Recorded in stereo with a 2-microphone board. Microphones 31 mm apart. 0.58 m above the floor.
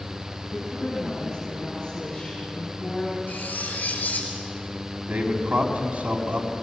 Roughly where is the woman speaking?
Left.